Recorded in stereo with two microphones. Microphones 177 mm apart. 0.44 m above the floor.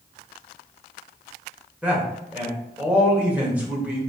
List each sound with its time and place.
1.8 s a man speaking: 10° right (ahead or behind), 1.4 m